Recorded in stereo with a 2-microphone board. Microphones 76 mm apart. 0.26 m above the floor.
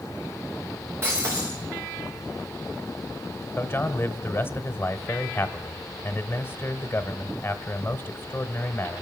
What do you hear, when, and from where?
1.0 s breaking glass: 35° right (ahead or behind), 8 m
3.6 s a man speaking: 30° left (ahead or behind), 1.0 m